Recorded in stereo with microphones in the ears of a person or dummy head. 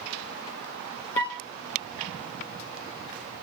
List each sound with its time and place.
1.1 s a flute: 15° left (ahead or behind), 1.6 m